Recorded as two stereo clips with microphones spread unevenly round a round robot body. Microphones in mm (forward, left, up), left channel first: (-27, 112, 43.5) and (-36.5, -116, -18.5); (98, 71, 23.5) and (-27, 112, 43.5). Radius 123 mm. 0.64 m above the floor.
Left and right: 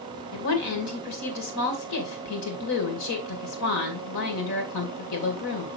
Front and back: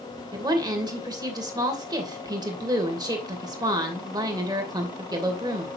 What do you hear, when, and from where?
0.3 s a woman speaking: 100° left, 2.5 m